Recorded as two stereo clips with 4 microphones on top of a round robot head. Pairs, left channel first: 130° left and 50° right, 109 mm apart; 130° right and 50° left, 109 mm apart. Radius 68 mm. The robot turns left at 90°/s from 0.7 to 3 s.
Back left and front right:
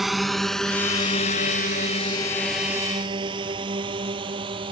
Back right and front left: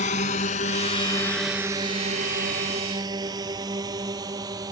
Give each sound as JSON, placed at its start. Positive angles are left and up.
{"t": 0.0, "sound": "a drone", "azimuth_deg": -140}